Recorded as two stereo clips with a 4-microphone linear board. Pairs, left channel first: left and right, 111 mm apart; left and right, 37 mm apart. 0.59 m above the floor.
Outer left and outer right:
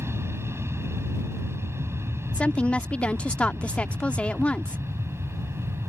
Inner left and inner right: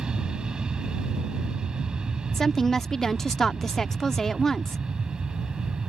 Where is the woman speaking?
10° left (ahead or behind).